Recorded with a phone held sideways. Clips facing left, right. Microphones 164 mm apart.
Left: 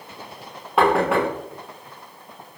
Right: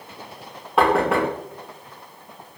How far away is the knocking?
About 0.6 m.